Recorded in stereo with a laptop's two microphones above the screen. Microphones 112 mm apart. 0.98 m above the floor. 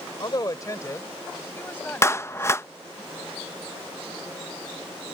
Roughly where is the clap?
Left.